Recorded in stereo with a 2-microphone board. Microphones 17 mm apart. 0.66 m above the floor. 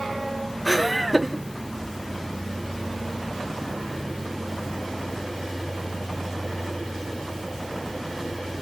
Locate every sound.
0.7 s laughter: 5° right (ahead or behind), 2 m